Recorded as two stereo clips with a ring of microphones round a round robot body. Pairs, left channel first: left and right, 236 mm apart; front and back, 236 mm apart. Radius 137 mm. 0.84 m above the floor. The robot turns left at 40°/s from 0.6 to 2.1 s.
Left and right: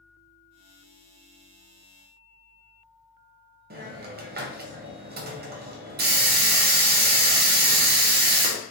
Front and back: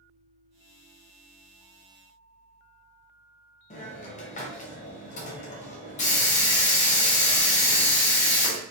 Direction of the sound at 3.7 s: 50° right.